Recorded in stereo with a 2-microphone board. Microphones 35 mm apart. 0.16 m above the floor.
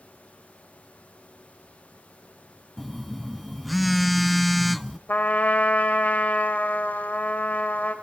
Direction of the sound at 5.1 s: 45° left (ahead or behind).